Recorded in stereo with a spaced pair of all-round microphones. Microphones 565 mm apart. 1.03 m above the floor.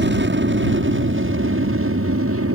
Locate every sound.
0.0 s an aircraft: 20° right (ahead or behind); by 2.5 s 25° right (ahead or behind)